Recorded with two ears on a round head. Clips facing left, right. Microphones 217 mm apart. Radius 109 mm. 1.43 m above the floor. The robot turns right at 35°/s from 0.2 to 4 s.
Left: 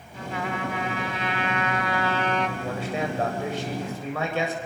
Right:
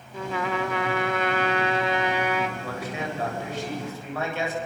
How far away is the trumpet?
About 2.0 m.